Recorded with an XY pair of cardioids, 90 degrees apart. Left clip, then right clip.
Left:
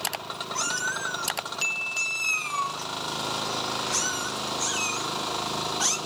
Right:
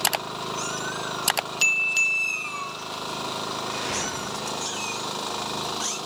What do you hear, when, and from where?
0.6 s a cat meowing: 45° left, 2.5 m